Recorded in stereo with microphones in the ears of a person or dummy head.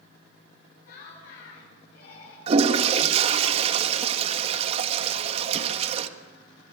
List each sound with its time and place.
0.8 s laughter: 55° left (ahead or behind), 9.5 m; by 2.4 s 50° left (ahead or behind), 8.5 m
2.5 s a toilet flushing: 35° right (ahead or behind), 1.5 m